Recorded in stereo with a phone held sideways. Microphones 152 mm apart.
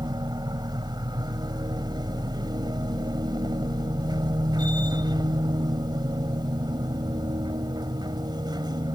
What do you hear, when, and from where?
0.0 s a machine running: 30° right (ahead or behind)